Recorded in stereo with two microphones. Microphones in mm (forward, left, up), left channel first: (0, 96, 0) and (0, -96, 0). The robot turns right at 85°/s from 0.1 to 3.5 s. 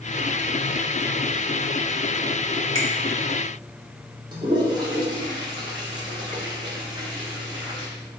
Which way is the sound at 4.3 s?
20° right (ahead or behind).